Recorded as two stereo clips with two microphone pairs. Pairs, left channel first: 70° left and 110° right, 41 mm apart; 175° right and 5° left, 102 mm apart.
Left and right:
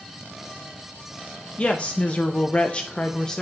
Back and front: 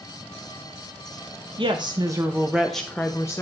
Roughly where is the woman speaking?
Ahead.